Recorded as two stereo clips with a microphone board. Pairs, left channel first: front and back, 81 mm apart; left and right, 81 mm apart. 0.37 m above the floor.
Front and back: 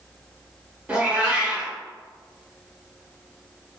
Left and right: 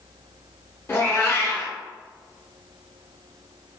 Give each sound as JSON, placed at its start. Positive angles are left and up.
{"t": 0.9, "sound": "a cat meowing", "azimuth_deg": 120, "distance_m": 0.7}